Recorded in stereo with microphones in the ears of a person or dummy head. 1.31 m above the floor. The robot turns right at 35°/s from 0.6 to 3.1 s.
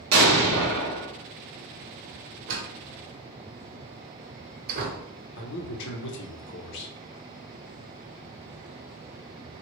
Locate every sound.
0.1 s an explosion: 75° right (ahead or behind), 0.7 m; by 1.1 s 70° right (ahead or behind), 0.7 m
2.5 s a door slam: 75° right (ahead or behind), 0.9 m; by 5.0 s 55° right (ahead or behind), 0.9 m
5.4 s a man speaking: 65° left (ahead or behind), 0.7 m